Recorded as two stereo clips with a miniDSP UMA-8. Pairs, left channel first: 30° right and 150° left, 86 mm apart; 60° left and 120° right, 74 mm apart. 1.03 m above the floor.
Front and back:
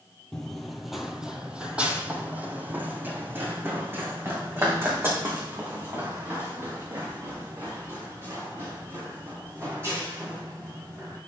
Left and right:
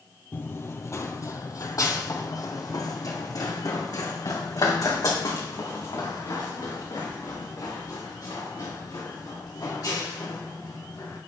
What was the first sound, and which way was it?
Running footsteps, 45° left.